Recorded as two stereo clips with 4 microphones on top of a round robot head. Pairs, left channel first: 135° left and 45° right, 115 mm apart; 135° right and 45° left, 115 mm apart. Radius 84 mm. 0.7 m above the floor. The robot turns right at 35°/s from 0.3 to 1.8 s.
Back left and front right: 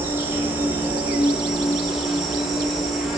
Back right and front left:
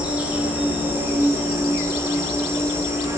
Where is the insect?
15° right, 0.7 m; by 3.2 s 35° left, 0.7 m.